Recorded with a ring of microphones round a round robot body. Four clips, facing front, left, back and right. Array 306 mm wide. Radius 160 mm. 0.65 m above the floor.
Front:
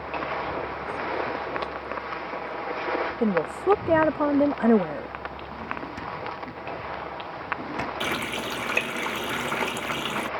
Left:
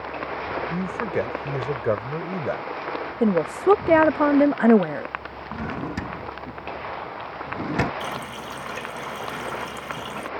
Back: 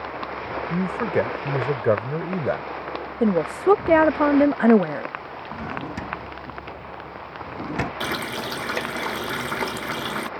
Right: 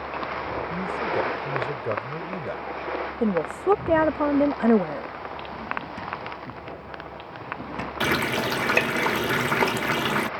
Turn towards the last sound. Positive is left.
turn(degrees=-100)